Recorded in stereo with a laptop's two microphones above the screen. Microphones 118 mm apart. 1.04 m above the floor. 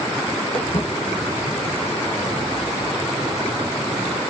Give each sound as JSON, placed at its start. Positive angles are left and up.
{"t": 0.5, "sound": "footsteps", "side_deg": 55, "distance_m": 2.5}